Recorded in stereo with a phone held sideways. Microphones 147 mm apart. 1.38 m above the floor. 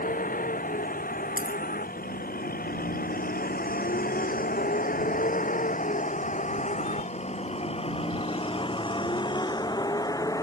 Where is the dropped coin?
75° left (ahead or behind).